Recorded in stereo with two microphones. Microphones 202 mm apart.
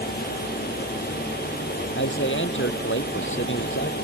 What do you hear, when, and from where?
1.9 s a man speaking: 65° left (ahead or behind)